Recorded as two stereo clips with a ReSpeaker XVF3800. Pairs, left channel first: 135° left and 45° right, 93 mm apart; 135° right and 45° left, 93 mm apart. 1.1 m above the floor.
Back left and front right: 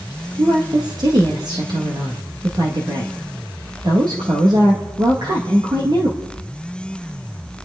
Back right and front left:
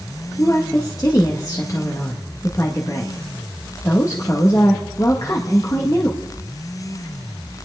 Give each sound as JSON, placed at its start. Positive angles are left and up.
{"t": 0.4, "sound": "a woman speaking", "azimuth_deg": -85, "distance_m": 1.8}